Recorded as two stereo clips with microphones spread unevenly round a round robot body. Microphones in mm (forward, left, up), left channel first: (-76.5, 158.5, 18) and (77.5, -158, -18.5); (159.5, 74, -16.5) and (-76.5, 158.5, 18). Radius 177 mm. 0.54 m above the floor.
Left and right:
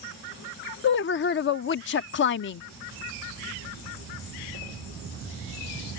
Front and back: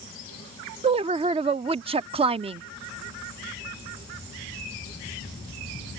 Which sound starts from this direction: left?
A woman speaking, at 0.8 s.